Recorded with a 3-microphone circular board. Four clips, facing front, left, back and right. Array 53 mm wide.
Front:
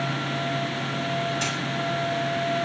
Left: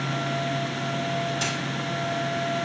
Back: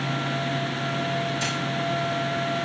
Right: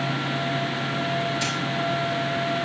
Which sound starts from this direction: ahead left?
A dropped coin, at 1.4 s.